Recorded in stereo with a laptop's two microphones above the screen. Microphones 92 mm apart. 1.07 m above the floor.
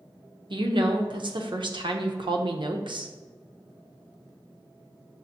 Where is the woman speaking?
60° right (ahead or behind), 0.6 m.